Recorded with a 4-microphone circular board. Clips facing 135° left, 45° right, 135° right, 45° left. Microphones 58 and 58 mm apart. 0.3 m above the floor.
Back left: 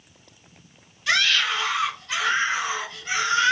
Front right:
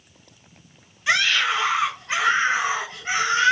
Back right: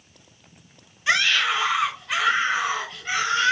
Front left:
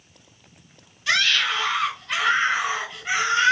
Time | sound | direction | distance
1.1 | a scream | 90° right | 1.7 m